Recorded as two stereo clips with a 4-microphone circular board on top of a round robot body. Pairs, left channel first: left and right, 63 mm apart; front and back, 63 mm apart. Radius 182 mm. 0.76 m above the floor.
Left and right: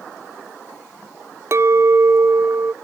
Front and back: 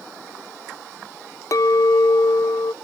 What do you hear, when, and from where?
1.5 s a clink: 40° right